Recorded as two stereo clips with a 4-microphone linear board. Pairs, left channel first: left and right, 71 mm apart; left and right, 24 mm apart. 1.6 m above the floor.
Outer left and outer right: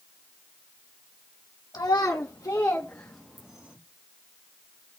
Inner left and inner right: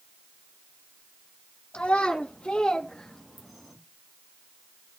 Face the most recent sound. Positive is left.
turn(degrees=-15)  # may be behind; listen again after turning